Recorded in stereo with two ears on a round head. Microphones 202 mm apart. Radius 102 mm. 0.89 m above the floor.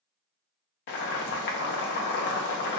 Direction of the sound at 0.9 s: 50° left (ahead or behind).